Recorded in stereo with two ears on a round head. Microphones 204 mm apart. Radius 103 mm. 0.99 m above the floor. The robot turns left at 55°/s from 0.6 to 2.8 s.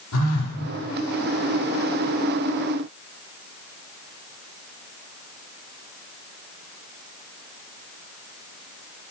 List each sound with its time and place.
0.1 s a phone buzzing: 70° left (ahead or behind), 7.5 m